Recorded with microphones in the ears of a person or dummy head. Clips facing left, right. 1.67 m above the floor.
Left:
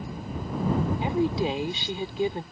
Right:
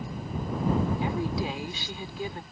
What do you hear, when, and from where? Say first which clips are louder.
1.0 s a woman speaking: left 4 dB; 25° left (ahead or behind)